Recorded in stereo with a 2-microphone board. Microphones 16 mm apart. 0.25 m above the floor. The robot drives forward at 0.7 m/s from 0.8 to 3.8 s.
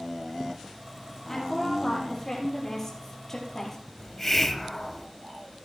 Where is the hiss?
20° left (ahead or behind), 0.8 m.